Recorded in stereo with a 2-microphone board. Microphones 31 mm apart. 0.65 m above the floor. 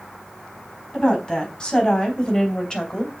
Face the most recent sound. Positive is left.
turn(degrees=20)  # may be behind; listen again after turning